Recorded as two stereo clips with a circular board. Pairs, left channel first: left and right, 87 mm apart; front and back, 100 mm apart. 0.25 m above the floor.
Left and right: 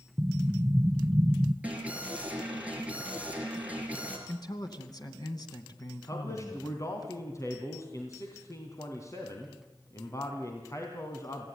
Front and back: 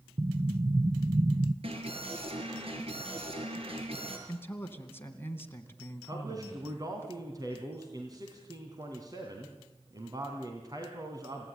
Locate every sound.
0.2 s an explosion: 150° right, 1.2 m
1.6 s an alarm: 165° right, 5.5 m
4.3 s a man speaking: 65° left, 2.5 m
6.1 s a man speaking: 135° left, 2.5 m